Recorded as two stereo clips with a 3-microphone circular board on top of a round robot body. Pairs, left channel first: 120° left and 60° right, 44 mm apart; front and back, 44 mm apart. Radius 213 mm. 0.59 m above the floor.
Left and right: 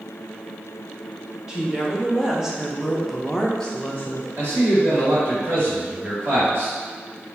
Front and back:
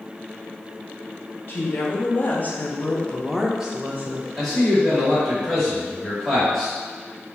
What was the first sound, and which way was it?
A woman speaking, 10° left.